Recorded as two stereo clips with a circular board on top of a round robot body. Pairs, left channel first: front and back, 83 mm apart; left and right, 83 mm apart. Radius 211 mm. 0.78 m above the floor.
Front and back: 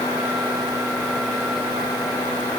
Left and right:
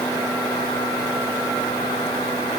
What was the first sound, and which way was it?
Only background noise.